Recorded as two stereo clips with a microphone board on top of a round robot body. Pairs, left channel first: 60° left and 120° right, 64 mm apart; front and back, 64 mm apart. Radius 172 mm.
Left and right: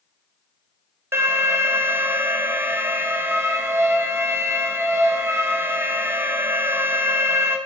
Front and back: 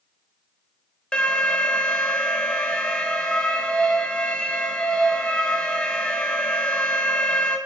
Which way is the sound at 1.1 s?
75° right.